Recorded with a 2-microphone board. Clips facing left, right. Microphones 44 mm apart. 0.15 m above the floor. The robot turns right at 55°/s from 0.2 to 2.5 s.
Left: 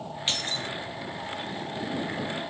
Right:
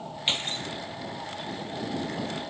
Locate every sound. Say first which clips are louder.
0.3 s keys jangling: right 1 dB; 20° right (ahead or behind); by 0.7 s 45° right (ahead or behind)